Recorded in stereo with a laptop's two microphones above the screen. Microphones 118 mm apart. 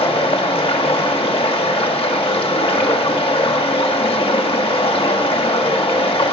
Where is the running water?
50° left (ahead or behind), 1.6 m.